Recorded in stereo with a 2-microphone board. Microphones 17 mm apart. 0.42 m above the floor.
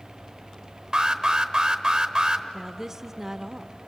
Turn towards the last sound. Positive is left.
turn(degrees=-20)  # may be behind; listen again after turning